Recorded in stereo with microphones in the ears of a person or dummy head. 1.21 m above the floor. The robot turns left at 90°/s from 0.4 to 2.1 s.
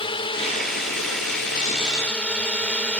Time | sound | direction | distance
0.0 | a drone | 25° left (ahead or behind) | ?